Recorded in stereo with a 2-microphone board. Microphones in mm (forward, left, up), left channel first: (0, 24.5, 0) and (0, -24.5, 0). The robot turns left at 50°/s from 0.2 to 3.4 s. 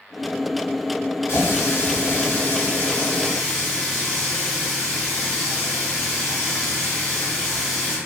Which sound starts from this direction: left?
A running tap, at 1.3 s.